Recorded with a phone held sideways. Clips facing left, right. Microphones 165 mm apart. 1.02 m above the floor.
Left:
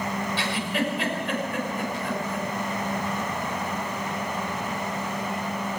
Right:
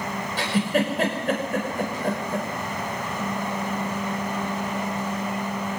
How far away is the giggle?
About 5.5 m.